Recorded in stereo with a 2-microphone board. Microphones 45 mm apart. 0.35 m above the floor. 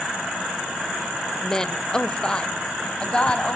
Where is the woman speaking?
15° left (ahead or behind), 1.0 m; by 3.6 s 25° left (ahead or behind), 2.5 m.